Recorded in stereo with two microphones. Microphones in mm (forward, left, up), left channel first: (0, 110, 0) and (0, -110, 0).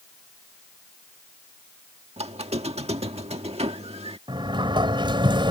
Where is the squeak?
30° right (ahead or behind).